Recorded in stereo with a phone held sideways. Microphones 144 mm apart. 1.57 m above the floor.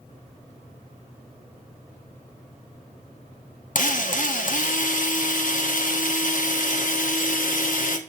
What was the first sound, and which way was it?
A drill, 65° left (ahead or behind).